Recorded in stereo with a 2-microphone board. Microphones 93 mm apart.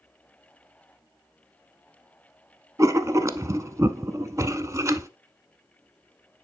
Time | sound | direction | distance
2.8 | writing | 35° right (ahead or behind) | 0.8 m